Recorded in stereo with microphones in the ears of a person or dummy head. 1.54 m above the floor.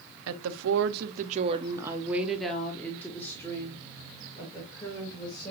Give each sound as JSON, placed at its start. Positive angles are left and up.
{"t": 0.3, "sound": "a woman speaking", "side_deg": -75, "distance_m": 0.7}